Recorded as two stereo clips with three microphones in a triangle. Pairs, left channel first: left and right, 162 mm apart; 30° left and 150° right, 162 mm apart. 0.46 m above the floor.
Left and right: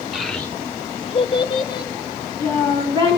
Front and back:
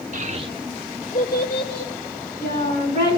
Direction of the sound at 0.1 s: Straight behind.